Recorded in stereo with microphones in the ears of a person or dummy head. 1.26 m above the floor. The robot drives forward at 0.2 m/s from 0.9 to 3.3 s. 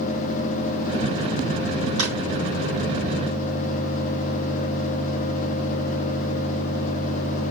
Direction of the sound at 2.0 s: 75° right (ahead or behind).